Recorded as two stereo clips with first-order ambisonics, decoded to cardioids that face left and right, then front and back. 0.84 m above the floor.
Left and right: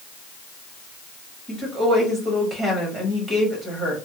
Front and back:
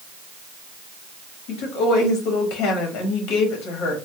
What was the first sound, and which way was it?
A woman speaking, 20° right.